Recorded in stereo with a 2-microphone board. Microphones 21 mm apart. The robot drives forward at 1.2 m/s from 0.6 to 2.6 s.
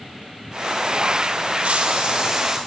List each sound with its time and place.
1.6 s a hiss: 80° right, 0.7 m; by 2.6 s 30° right (ahead or behind), 1.4 m